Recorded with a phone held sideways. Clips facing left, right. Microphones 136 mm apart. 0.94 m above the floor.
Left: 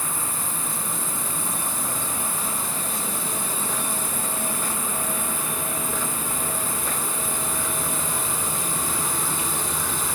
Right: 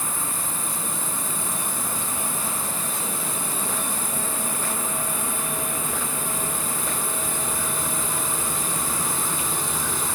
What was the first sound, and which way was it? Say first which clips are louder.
An insect: even; 45° right (ahead or behind).